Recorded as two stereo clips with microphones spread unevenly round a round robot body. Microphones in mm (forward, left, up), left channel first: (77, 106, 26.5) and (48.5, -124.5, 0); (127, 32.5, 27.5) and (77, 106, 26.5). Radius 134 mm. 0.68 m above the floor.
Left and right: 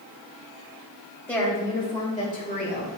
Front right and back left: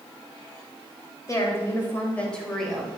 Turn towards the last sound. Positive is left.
turn(degrees=35)